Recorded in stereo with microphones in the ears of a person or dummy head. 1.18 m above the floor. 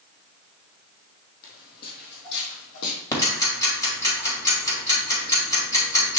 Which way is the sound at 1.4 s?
50° left (ahead or behind).